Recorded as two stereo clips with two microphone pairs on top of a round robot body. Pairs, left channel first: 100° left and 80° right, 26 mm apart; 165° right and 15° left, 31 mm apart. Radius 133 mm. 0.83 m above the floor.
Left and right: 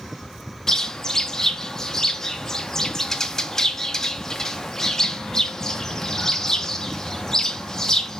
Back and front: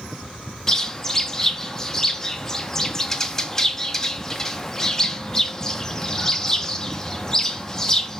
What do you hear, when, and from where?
0.7 s a bird: 150° left, 0.6 m